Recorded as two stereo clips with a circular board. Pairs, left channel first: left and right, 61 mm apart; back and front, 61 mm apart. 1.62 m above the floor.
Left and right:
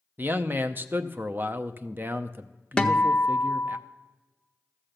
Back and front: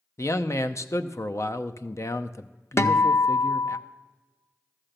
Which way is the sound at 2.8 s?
160° left.